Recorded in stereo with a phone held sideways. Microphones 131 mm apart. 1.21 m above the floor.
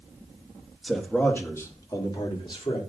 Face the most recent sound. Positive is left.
turn(degrees=45)  # may be behind; listen again after turning